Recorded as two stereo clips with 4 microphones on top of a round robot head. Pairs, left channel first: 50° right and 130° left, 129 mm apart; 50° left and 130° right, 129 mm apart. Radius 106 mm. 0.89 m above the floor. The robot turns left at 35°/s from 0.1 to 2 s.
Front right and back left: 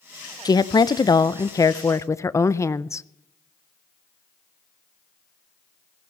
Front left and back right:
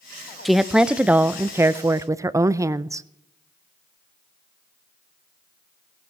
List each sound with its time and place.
0.5 s a woman speaking: 40° right, 0.6 m; by 3.0 s 95° right, 0.6 m